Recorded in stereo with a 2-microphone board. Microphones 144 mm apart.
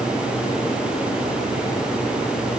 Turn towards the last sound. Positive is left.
No sound to turn to.